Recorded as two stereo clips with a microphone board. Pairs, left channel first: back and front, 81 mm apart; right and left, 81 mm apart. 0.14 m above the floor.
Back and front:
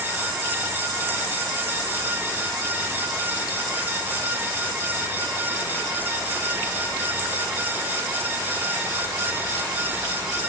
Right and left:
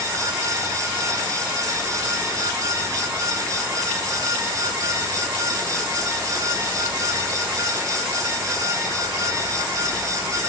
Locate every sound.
Only background noise.